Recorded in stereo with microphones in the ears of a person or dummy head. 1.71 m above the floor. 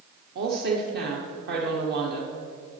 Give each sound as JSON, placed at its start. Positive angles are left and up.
{"t": 0.3, "sound": "a woman speaking", "side_deg": -60, "distance_m": 1.1}